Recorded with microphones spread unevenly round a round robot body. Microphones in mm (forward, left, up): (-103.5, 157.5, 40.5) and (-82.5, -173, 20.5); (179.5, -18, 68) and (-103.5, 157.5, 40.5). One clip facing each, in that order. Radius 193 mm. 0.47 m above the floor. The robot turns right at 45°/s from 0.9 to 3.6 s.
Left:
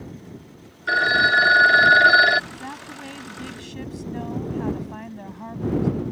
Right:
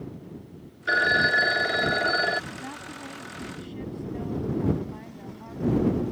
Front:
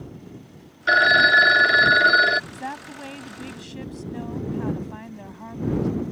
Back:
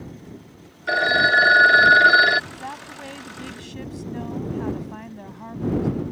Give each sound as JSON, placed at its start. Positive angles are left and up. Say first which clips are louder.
{"t": 0.9, "sound": "a phone ringing", "louder": "left 1 dB, even", "azimuth_deg": 10}
{"t": 2.5, "sound": "a woman speaking", "louder": "left 1 dB, front 2 dB", "azimuth_deg": 5}